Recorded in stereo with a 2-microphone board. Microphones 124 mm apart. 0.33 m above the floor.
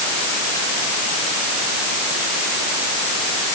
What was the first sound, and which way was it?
Only background noise.